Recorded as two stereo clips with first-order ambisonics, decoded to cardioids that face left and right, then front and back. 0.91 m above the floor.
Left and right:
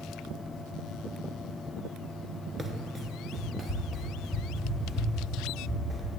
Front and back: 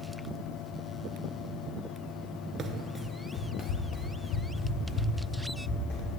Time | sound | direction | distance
2.6 | running footsteps | 160° right | 0.9 m